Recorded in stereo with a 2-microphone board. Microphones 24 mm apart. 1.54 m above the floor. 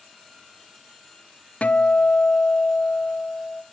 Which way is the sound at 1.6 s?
65° left (ahead or behind).